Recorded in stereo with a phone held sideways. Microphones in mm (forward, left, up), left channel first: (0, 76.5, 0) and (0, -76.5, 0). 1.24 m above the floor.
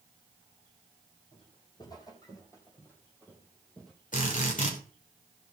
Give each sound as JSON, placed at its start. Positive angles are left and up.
{"t": 1.3, "sound": "footsteps", "side_deg": 30, "distance_m": 3.5}
{"t": 4.1, "sound": "a drill", "side_deg": 60, "distance_m": 3.0}